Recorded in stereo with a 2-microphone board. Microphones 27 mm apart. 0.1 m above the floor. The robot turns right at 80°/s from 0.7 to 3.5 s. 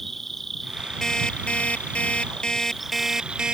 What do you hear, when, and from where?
0.0 s an insect: 10° left; by 3.5 s 125° right
1.0 s an alarm clock: 20° left; by 3.5 s 140° right